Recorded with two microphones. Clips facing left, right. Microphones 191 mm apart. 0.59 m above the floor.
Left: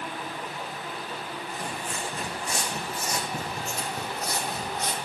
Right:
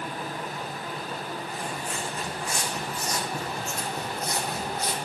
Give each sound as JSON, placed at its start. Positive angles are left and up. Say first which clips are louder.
{"t": 1.5, "sound": "footsteps", "louder": "right 1 dB", "side_deg": 40, "distance_m": 2.5}